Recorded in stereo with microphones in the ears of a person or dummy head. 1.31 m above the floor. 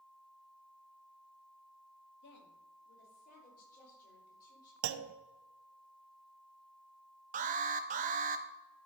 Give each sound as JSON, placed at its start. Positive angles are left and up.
{"t": 2.2, "sound": "a woman speaking", "side_deg": 60, "distance_m": 2.0}
{"t": 4.8, "sound": "a clunk", "side_deg": -75, "distance_m": 0.6}
{"t": 7.3, "sound": "an alarm", "side_deg": -35, "distance_m": 0.6}